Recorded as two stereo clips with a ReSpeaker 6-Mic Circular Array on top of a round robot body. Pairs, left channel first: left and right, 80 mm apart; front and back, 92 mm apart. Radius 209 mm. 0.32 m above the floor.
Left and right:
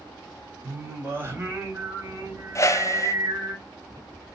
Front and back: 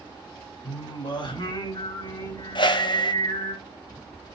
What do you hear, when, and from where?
0.6 s singing: 35° right, 3.5 m
2.5 s a whoosh: 35° left, 1.0 m